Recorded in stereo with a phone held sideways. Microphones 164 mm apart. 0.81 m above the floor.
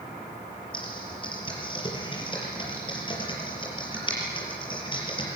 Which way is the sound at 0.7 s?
30° left (ahead or behind).